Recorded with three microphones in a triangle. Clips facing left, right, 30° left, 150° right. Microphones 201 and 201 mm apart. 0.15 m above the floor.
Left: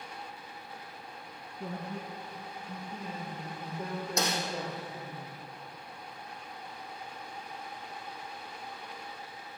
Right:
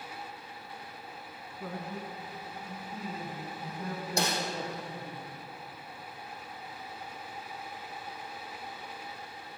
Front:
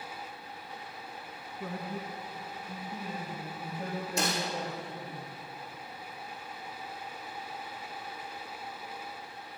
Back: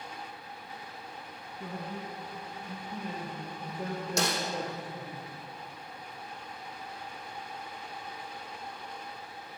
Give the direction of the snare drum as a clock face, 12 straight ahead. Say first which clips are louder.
Right 1 dB, back 1 dB; 5 o'clock.